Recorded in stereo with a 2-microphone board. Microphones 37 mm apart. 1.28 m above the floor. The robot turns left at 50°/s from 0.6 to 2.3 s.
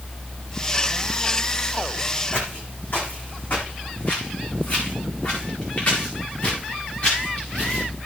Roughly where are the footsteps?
Left.